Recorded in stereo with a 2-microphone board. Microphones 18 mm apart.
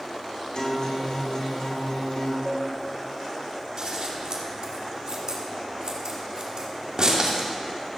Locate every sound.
0.6 s a guitar: 60° left (ahead or behind), 2.5 m
2.5 s dishes clattering: 5° left (ahead or behind), 1.7 m
3.8 s scissors: 35° right (ahead or behind), 2 m